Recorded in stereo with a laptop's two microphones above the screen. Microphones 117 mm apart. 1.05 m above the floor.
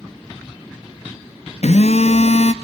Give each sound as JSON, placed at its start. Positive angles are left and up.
{"t": 1.6, "sound": "a phone buzzing", "side_deg": 70, "distance_m": 0.6}